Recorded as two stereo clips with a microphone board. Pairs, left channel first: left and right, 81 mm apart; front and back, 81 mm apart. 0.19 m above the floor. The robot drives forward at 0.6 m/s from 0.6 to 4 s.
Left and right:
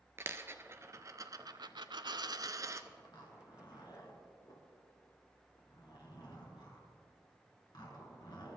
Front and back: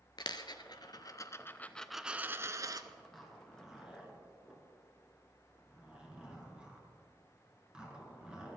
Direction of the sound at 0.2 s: 30° right.